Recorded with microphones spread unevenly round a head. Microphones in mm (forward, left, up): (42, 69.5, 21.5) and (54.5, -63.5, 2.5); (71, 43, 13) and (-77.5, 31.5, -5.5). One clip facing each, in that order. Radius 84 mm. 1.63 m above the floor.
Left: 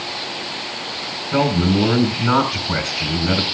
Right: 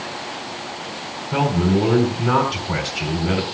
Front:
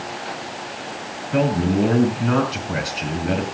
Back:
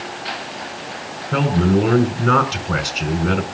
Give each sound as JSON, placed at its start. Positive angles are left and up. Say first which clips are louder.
{"t": 1.3, "sound": "a man speaking", "louder": "left 1 dB, back 2 dB", "azimuth_deg": -155, "distance_m": 4.5}